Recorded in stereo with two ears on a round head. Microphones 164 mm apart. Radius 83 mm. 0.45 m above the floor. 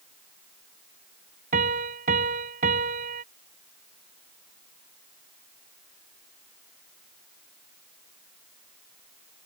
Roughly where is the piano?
Right.